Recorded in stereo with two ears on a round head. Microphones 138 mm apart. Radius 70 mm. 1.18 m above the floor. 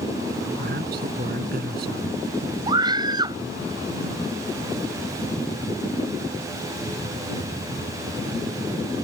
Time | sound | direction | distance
0.6 | a man speaking | 60° right (ahead or behind) | ?
2.7 | a scream | 30° right (ahead or behind) | ?